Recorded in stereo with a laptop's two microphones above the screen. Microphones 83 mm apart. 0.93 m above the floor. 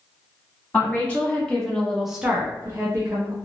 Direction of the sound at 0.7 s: 20° left (ahead or behind).